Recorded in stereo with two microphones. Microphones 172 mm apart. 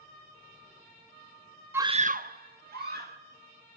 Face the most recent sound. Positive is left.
turn(degrees=-60)  # may be behind; listen again after turning